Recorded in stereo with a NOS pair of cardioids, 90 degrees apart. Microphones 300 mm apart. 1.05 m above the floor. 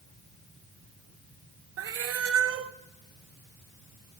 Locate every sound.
1.8 s a cat meowing: 55° right, 0.8 m